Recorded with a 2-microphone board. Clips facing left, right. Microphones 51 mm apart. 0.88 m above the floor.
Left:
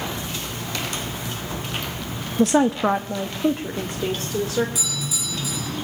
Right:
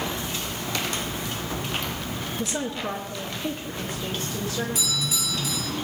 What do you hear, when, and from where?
2.4 s a woman speaking: 55° left (ahead or behind), 0.5 m; by 4.7 s 45° left (ahead or behind), 2.5 m
4.8 s a doorbell: 45° right (ahead or behind), 9 m